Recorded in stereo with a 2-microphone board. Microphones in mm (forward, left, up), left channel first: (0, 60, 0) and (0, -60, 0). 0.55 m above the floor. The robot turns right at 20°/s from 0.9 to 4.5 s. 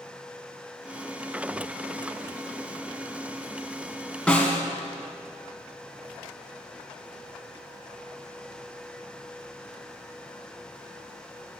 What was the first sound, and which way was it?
A snare drum, 10° left (ahead or behind).